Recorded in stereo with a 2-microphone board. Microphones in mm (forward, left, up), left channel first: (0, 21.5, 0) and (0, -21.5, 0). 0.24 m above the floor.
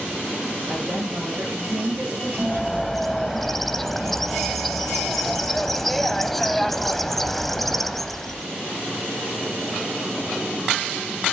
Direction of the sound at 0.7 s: 70° right (ahead or behind).